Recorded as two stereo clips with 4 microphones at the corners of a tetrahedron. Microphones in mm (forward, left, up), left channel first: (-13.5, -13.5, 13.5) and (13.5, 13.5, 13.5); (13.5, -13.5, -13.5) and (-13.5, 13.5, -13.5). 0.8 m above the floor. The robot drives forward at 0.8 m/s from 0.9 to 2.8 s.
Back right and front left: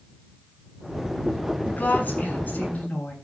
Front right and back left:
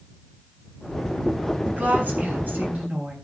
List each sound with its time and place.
1.7 s a woman speaking: straight behind, 7.5 m